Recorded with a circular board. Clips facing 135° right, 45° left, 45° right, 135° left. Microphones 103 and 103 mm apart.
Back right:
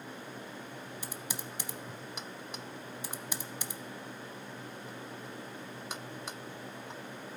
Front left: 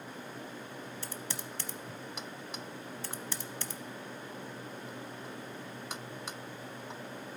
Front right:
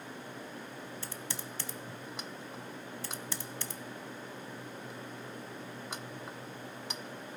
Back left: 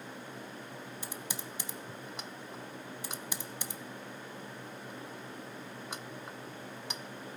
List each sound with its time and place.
1.0 s typing on a keyboard: straight behind, 0.7 m